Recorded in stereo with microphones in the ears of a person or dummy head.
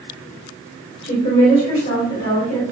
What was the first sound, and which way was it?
A woman speaking, 40° left (ahead or behind).